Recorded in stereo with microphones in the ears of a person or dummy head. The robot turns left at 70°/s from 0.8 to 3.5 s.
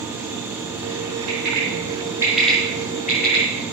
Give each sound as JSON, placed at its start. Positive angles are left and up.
{"t": 1.3, "sound": "a bird", "side_deg": -80, "distance_m": 6.5}